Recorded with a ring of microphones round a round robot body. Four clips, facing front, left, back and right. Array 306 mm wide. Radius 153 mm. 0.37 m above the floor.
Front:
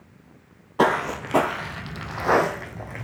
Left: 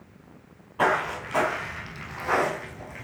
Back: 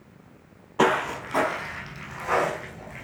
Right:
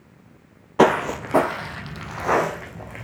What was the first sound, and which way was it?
Footsteps, 85° right.